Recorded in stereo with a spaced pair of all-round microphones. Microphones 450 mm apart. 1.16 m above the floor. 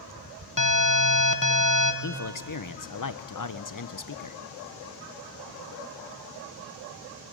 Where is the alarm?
45° left (ahead or behind), 1.2 m.